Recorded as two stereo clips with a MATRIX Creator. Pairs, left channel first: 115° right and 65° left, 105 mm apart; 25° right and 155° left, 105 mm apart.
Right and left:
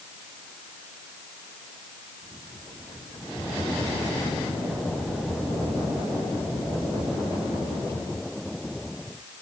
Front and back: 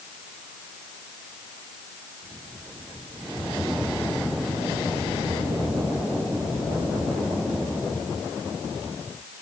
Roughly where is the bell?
No bell in this recording.